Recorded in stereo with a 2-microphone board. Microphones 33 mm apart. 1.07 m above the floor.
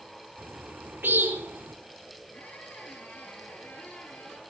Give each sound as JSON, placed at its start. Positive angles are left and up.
{"t": 0.4, "sound": "a bird", "side_deg": -85, "distance_m": 3.5}
{"t": 2.3, "sound": "a squeak", "side_deg": 50, "distance_m": 6.5}